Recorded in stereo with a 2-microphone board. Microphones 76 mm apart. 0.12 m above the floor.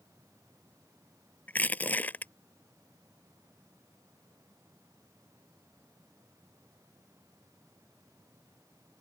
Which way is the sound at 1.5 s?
25° left (ahead or behind).